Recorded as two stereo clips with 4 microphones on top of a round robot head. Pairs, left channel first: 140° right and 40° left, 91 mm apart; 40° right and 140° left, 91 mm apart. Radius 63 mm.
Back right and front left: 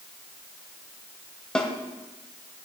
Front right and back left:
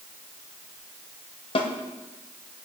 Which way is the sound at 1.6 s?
55° right.